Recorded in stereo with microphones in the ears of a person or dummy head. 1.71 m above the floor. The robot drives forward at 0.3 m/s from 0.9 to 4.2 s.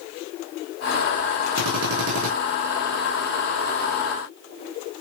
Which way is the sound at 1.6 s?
65° right (ahead or behind).